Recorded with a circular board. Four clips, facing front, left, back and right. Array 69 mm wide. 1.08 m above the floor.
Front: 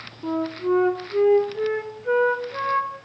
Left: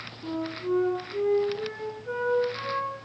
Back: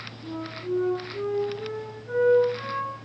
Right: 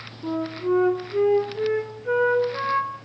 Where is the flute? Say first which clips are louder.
Right 5 dB, front 9 dB; 30° right, 3 m.